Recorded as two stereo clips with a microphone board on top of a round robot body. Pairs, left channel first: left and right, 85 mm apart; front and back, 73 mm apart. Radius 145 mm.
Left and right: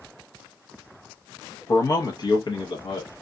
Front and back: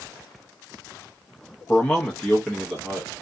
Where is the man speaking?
60° left, 0.9 m; by 3.1 s 90° left, 1.5 m.